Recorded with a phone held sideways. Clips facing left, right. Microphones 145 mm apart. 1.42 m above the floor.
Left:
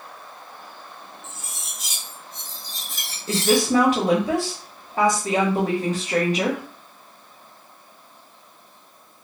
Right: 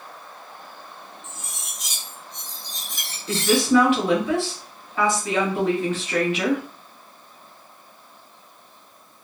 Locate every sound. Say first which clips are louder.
1.2 s cutlery clinking: even; 5° left (ahead or behind), 1.0 m
3.3 s a woman speaking: even; 40° left (ahead or behind), 1.2 m